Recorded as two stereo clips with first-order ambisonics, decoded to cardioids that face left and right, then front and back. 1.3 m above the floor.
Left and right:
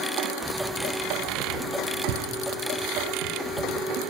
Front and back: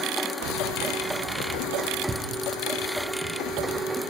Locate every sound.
0.4 s keys jangling: straight behind, 0.8 m; by 4.0 s 85° right, 2.5 m